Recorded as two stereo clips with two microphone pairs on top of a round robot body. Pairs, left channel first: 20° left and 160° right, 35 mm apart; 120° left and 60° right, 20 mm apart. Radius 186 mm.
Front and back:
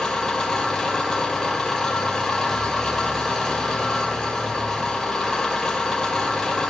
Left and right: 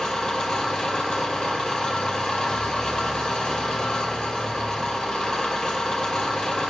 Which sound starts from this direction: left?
An engine running, at 0.0 s.